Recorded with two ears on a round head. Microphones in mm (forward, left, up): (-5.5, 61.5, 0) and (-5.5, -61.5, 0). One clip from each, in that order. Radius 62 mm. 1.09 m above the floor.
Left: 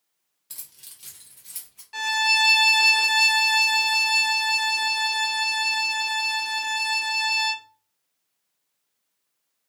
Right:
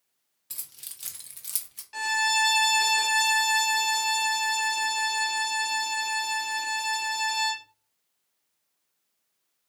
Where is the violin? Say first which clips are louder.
Left 4 dB; 5° left (ahead or behind), 1.0 m.